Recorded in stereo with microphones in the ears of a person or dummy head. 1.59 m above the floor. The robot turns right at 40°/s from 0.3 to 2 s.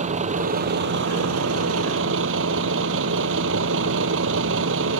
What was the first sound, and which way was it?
A vehicle, 145° right.